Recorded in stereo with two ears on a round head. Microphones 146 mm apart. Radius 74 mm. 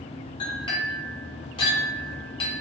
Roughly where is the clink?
Left.